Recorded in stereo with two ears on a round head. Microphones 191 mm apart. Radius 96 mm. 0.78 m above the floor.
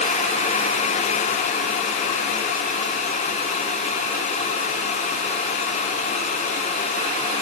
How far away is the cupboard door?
No cupboard door in this recording.